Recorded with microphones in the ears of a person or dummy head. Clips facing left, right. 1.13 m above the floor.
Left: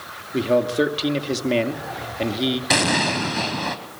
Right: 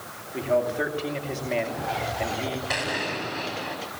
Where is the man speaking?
45° left (ahead or behind), 2.5 m.